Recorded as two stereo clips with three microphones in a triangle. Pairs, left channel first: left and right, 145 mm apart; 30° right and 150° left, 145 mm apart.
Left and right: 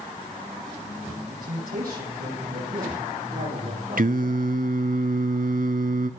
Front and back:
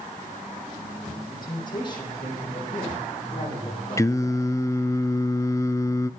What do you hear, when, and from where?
1.3 s a man speaking: 90° right, 10 m; by 4.6 s 80° right, 10.5 m
4.0 s singing: 100° right, 0.6 m